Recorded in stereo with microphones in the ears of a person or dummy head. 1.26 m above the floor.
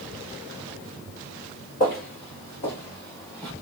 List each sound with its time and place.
1.8 s footsteps: 30° left (ahead or behind), 1.4 m; by 3.5 s 5° left (ahead or behind), 1.6 m